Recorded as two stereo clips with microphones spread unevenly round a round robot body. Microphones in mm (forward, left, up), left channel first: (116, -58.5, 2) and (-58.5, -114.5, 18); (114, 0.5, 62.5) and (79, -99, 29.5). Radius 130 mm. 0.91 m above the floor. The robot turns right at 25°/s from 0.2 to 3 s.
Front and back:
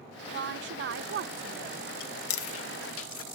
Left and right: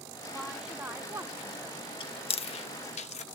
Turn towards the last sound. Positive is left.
turn(degrees=50)